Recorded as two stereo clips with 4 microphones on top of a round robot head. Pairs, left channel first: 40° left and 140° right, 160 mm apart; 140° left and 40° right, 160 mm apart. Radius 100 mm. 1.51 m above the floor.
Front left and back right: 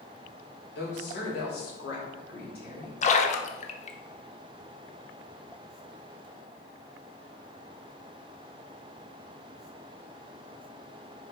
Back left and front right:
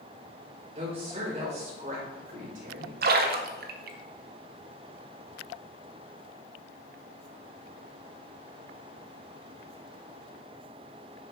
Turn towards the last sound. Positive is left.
turn(degrees=-10)